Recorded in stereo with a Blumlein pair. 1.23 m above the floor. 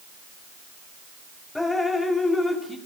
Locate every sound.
1.6 s dripping: 10° left, 2.0 m